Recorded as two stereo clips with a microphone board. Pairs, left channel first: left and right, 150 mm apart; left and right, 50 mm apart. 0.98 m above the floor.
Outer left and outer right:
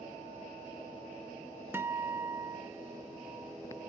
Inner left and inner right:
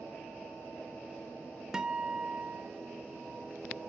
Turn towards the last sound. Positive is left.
turn(degrees=-15)  # may be behind; listen again after turning